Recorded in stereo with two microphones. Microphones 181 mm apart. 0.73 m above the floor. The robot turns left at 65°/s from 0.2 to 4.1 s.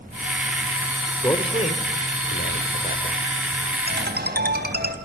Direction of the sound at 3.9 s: 75° right (ahead or behind).